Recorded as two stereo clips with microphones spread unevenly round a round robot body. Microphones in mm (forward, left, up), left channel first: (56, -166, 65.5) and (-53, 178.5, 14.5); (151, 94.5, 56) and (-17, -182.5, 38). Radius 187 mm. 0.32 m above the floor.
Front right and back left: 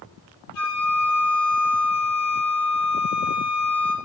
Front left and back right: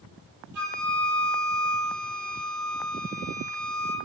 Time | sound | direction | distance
0.5 | a flute | 90° right | 8 m